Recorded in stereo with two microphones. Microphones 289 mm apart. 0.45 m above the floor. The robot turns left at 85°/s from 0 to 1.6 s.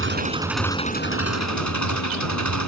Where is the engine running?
130° right; by 2.7 s 90° left.